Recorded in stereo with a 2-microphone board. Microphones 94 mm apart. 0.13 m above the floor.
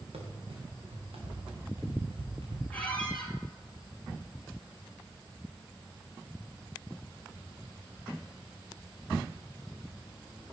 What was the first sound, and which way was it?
Running footsteps, 90° right.